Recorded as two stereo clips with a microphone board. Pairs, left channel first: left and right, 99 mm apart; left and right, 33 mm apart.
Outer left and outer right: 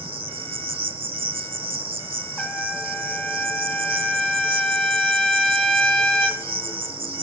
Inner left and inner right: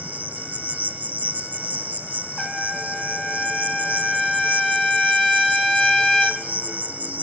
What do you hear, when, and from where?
0.0 s an insect: 60° right (ahead or behind), 0.7 m
2.4 s a trumpet: 5° left (ahead or behind), 1.0 m